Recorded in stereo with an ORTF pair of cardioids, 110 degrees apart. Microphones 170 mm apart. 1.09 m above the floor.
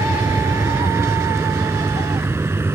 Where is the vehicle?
15° right.